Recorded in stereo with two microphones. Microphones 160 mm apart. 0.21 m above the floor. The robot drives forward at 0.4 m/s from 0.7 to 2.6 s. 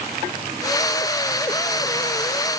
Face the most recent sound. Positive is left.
No sound to turn to.